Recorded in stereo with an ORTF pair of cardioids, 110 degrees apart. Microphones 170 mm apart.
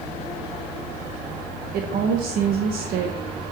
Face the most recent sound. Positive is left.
turn(degrees=-70)